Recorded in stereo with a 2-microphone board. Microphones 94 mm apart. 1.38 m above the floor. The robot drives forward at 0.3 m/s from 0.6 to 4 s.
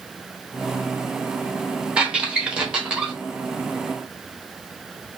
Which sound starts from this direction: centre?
A squeak, at 2.0 s.